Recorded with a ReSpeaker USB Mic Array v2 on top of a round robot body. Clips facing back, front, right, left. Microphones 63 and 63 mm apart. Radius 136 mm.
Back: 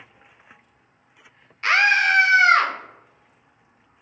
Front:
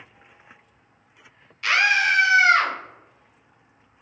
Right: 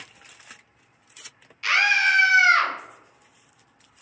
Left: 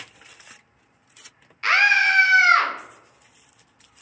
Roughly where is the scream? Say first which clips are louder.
Back 2 dB, left 3 dB; behind left.